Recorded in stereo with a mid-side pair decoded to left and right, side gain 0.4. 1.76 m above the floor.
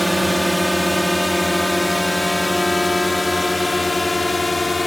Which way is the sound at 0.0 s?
10° right.